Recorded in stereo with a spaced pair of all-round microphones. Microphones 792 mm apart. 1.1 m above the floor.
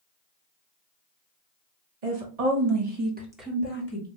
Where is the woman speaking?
65° right (ahead or behind), 1.2 m; by 4.1 s 25° left (ahead or behind), 1.3 m.